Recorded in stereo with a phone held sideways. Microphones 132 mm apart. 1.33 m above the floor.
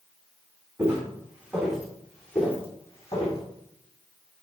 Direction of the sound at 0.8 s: 20° right (ahead or behind).